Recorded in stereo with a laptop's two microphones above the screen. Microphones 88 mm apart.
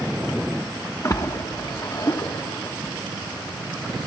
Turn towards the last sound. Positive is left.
turn(degrees=40)  # may be behind; listen again after turning